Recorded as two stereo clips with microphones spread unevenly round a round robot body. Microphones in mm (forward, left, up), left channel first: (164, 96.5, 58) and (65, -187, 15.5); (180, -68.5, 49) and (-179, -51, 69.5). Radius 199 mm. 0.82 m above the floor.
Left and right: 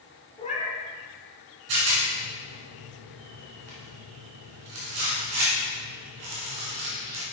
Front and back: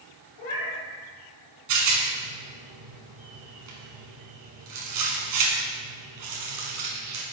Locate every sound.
0.4 s a cat meowing: straight ahead, 1.8 m
1.7 s a rattle: 150° right, 1.9 m